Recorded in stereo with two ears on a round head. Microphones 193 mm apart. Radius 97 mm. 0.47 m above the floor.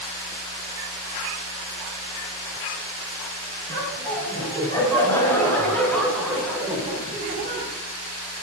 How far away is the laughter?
About 3 m.